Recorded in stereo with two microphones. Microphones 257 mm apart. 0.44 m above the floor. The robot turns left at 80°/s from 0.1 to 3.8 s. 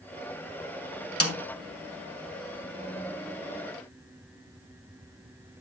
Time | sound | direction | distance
1.2 | a snare drum | 65° left (ahead or behind) | 1.7 m